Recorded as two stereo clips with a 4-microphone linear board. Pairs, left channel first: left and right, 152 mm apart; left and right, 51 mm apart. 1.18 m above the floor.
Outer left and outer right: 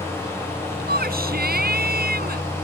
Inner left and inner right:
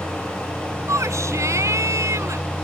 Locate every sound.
0.9 s a shout: 85° right